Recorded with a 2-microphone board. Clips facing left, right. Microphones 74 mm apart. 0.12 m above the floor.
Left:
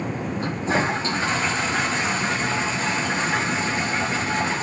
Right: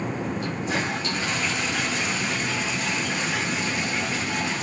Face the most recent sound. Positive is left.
turn(degrees=35)  # may be behind; listen again after turning